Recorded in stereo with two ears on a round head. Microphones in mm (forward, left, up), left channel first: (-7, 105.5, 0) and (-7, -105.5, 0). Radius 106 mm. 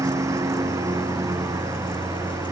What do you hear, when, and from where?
0.0 s a lawn mower: 15° right (ahead or behind)